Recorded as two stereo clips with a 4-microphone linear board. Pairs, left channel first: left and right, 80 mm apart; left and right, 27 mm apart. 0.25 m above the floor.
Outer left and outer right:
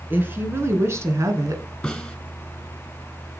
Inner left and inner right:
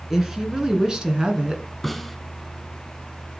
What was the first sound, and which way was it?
A woman speaking, 25° right (ahead or behind).